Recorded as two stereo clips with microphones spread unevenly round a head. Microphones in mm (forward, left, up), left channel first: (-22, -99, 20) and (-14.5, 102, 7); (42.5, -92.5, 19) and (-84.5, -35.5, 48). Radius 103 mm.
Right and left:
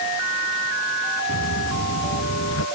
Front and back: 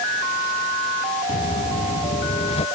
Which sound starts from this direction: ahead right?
Footsteps, at 1.3 s.